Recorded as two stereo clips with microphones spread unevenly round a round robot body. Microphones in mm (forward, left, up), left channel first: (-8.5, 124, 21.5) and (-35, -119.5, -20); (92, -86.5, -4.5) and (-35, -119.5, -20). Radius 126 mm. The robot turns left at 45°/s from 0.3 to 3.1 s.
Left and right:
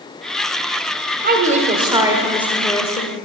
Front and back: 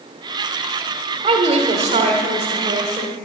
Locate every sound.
1.2 s a woman speaking: 135° right, 1.2 m; by 3.1 s 140° left, 1.2 m